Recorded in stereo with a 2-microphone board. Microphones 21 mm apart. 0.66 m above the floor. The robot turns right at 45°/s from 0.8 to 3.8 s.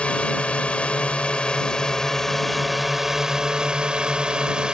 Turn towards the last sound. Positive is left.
turn(degrees=-135)